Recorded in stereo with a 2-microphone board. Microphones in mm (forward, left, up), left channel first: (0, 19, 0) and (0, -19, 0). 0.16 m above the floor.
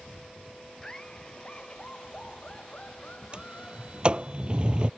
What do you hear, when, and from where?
0.8 s laughter: 20° left (ahead or behind); by 4.3 s 40° left (ahead or behind)
3.3 s a sliding door: 30° right (ahead or behind)